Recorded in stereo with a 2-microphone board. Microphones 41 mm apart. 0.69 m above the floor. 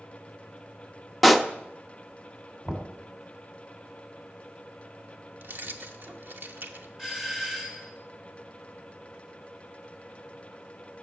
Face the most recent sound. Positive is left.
turn(degrees=-5)  # may be behind; listen again after turning